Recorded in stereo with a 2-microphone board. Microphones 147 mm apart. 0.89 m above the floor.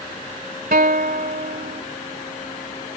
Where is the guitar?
80° right.